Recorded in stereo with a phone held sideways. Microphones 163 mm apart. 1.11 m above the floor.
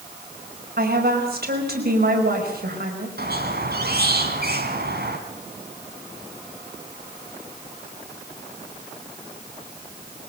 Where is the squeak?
70° right (ahead or behind), 2.5 m.